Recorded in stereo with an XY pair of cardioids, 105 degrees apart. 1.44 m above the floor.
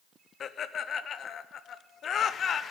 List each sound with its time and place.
0.4 s laughter: 55° left, 0.6 m